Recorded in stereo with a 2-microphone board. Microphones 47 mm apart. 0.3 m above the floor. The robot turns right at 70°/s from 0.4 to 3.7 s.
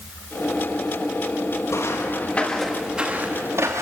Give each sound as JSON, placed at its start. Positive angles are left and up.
{"t": 1.7, "sound": "footsteps", "side_deg": 80, "distance_m": 7.0}